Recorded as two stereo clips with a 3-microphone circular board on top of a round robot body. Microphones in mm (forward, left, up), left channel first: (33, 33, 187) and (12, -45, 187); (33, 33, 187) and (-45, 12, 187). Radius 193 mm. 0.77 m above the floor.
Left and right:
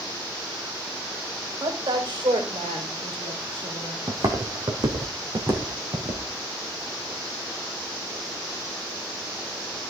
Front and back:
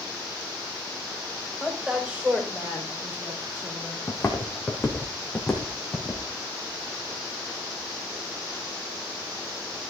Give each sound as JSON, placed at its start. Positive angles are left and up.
{"t": 1.6, "sound": "a woman speaking", "azimuth_deg": -85, "distance_m": 5.0}
{"t": 4.1, "sound": "footsteps", "azimuth_deg": -55, "distance_m": 1.7}